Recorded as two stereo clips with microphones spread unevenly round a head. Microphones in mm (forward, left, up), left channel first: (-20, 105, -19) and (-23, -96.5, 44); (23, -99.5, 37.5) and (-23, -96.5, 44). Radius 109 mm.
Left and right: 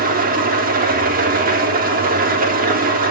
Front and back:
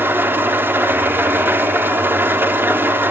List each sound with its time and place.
0.0 s an engine running: 140° right, 3.5 m